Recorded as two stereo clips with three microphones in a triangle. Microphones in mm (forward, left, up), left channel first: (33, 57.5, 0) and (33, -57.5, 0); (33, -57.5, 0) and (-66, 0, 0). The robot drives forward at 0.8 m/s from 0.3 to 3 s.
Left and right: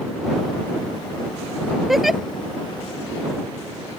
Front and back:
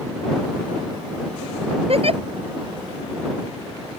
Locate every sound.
1.9 s a giggle: straight behind